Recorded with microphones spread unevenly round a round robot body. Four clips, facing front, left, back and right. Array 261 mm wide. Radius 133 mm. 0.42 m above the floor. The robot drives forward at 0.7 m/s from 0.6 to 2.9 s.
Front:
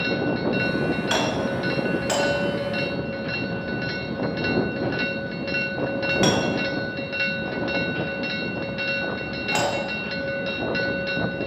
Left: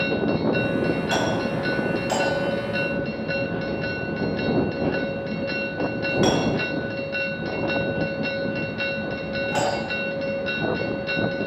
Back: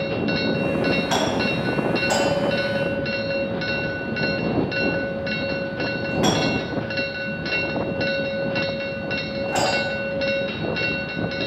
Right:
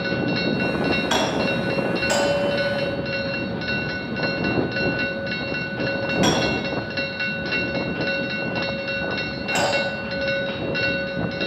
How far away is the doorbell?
About 5.5 m.